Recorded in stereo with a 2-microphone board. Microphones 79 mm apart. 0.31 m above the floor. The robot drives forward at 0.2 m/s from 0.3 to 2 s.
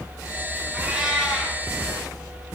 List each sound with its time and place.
0.7 s a cat meowing: 10° right (ahead or behind), 2 m